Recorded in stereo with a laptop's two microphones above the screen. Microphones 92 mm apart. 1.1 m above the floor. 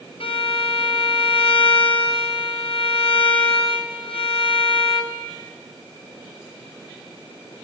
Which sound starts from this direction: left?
A violin, at 0.2 s.